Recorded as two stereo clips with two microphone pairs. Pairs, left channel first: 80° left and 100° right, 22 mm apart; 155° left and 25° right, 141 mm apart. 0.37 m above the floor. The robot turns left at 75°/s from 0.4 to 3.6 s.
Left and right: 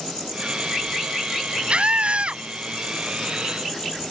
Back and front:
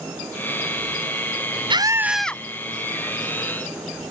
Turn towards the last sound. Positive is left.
turn(degrees=140)